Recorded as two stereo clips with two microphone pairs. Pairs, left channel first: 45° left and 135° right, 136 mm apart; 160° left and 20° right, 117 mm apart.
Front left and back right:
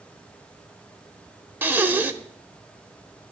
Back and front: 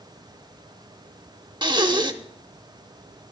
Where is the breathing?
60° right, 0.6 m.